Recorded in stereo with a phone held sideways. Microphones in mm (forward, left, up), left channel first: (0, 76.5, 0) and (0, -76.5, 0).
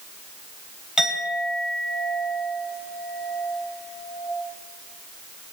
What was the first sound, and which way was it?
A clink, 5° right (ahead or behind).